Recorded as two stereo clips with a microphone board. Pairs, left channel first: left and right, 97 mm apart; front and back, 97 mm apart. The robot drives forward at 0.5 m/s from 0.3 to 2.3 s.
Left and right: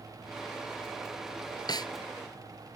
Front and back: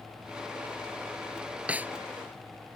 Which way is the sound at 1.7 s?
105° left.